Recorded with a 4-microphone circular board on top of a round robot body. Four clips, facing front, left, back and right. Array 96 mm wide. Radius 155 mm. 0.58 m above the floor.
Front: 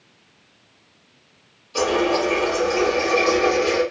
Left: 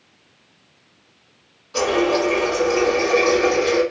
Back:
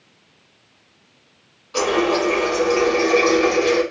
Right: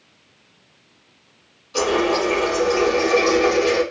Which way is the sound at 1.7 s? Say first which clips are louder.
Left 1 dB, back 1 dB; 150° left.